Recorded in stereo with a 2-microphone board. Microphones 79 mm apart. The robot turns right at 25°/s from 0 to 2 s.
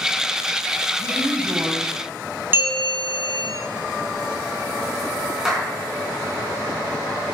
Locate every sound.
1.0 s a woman speaking: 55° right (ahead or behind), 2.5 m; by 2.4 s 30° right (ahead or behind), 2.5 m
2.5 s a bell: 30° right (ahead or behind), 3 m
5.5 s a clap: 10° right (ahead or behind), 4.5 m